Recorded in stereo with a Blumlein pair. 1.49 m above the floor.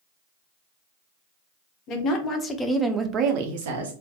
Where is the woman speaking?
35° left, 0.8 m; by 3.9 s 65° right, 0.7 m.